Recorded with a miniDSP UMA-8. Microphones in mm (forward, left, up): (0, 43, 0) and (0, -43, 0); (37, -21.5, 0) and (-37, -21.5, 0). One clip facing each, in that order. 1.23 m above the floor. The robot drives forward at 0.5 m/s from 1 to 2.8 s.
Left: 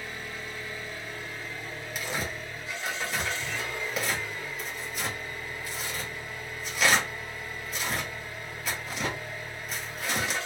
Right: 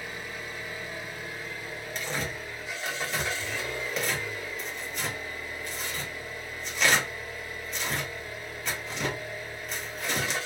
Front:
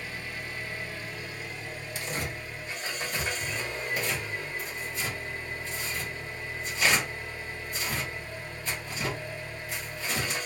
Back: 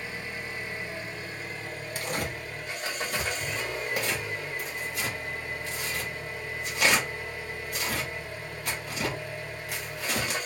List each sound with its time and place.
0.0 s an engine running: 150° right, 0.8 m; by 10.5 s 170° right, 1.4 m
1.9 s tearing paper: 170° left, 0.8 m; by 10.4 s 175° left, 1.1 m